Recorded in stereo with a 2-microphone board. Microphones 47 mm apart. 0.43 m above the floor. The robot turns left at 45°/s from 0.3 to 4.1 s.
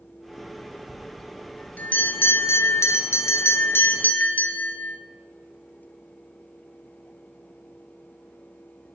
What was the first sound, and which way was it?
A bell, 175° right.